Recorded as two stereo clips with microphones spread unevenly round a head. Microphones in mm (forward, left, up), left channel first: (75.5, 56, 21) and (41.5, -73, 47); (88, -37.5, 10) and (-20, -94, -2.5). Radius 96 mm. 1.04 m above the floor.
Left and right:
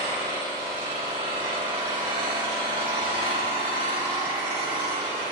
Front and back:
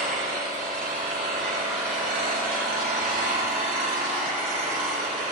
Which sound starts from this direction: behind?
An engine running, at 0.0 s.